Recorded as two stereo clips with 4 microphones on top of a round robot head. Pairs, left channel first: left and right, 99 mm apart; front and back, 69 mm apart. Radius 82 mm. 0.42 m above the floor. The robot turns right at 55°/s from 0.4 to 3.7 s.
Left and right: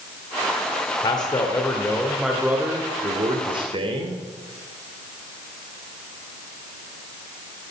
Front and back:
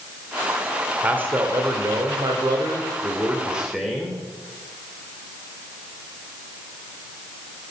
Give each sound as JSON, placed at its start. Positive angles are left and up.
{"t": 1.0, "sound": "a man speaking", "azimuth_deg": 115, "distance_m": 1.5}